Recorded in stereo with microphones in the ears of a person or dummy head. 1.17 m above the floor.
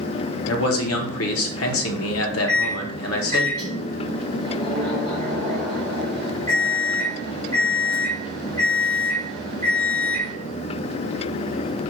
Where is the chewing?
I don't hear chewing.